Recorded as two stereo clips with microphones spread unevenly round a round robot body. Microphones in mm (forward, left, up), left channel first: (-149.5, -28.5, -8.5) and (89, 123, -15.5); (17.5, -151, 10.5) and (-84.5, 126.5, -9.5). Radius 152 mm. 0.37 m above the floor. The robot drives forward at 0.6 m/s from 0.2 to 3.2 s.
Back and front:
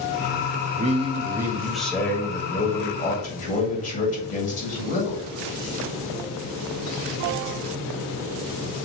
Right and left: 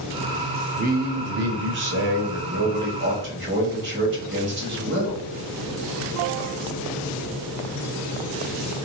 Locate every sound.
0.8 s a man speaking: 75° left, 1.2 m; by 5.2 s 150° left, 1.7 m